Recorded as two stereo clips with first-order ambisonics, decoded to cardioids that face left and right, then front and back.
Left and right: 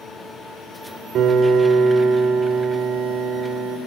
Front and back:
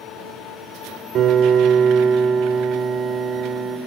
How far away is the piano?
About 1.9 m.